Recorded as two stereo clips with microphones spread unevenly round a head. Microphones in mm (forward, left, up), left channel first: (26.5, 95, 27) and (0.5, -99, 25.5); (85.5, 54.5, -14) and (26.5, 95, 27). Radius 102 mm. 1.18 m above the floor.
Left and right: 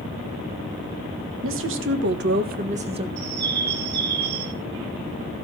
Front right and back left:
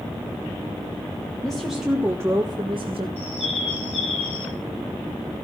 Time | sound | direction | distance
1.4 | a woman speaking | 110° right | 2.0 m
3.2 | a bird | 65° right | 1.9 m